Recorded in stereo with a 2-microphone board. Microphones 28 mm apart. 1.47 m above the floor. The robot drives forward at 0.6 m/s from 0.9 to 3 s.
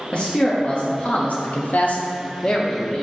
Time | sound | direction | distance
0.1 | a man speaking | 45° left (ahead or behind) | 0.6 m